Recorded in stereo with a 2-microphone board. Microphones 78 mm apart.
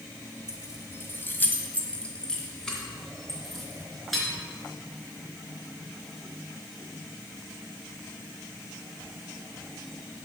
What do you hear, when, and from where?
0.5 s keys jangling: 45° left (ahead or behind), 1.0 m; by 4.2 s centre (ahead or behind), 3 m